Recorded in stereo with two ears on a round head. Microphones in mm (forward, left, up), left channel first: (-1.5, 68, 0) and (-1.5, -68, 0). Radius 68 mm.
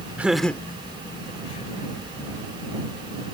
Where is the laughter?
10° right (ahead or behind); by 2.0 s 45° left (ahead or behind).